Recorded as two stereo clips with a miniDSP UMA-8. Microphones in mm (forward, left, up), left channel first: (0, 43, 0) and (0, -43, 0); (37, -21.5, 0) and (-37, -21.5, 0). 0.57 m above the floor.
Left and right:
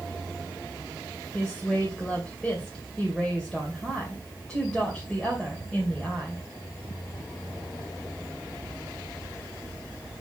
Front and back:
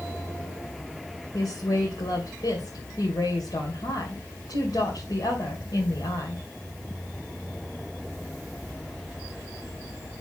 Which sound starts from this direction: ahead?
A woman speaking, at 1.3 s.